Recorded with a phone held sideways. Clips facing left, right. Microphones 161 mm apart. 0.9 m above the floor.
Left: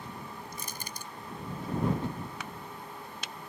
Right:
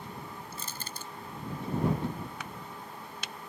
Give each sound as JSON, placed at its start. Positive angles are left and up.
{"t": 0.5, "sound": "crushing", "side_deg": 15}